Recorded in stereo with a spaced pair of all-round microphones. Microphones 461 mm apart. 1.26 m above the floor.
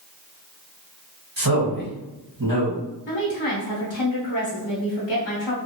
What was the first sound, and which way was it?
A man speaking, 45° right (ahead or behind).